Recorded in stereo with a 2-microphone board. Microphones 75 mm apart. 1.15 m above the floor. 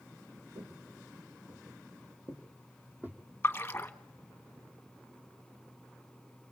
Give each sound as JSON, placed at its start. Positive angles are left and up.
{"t": 0.6, "sound": "footsteps", "side_deg": -55, "distance_m": 4.0}
{"t": 3.4, "sound": "a splash", "side_deg": 25, "distance_m": 1.3}